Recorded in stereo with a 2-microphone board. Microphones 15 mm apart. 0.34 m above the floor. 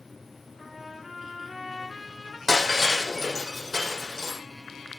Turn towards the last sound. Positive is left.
turn(degrees=25)  # may be behind; listen again after turning